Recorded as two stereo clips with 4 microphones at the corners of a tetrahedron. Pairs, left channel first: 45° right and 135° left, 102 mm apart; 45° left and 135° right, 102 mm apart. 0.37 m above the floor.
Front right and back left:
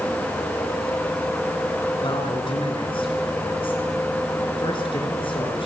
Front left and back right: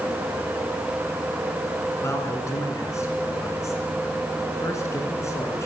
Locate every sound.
2.0 s a man speaking: 15° right, 5.5 m